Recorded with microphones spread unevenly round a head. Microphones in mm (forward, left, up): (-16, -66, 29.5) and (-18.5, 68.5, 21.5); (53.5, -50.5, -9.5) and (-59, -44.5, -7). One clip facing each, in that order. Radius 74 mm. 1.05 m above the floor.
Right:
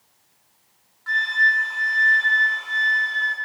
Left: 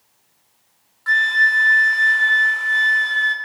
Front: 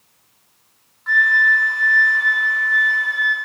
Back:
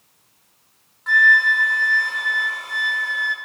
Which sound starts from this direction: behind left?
A flute, at 1.1 s.